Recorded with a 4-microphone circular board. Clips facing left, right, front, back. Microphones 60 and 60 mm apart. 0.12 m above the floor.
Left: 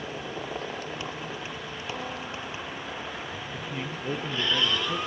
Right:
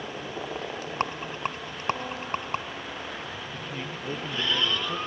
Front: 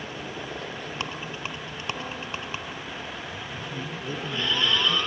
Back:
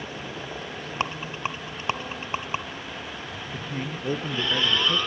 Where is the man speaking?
165° left, 2 m.